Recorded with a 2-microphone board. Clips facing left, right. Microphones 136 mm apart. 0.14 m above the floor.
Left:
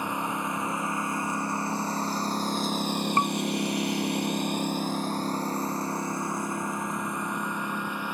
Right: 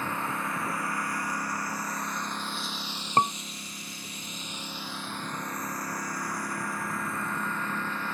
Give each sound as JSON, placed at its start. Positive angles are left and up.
{"t": 0.0, "sound": "a lawn mower", "side_deg": 15}
{"t": 3.2, "sound": "a scream", "side_deg": -25}